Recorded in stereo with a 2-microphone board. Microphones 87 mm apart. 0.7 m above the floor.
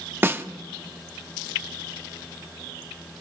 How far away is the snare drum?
About 1.1 m.